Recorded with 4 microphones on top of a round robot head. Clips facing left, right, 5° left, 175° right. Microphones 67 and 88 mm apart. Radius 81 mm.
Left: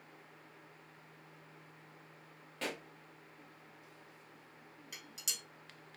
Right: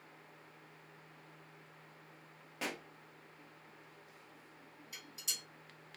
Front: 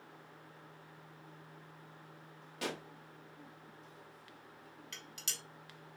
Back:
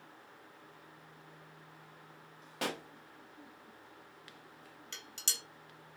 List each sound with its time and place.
2.6 s a pop: 165° right, 0.8 m
4.9 s dishes clattering: 125° left, 1.1 m